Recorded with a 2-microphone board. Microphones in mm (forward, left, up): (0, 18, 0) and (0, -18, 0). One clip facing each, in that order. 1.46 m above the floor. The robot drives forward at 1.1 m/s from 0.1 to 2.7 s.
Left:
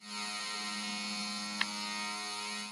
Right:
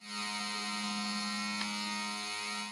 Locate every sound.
1.6 s tapping: 50° left (ahead or behind); by 1.7 s 55° left (ahead or behind)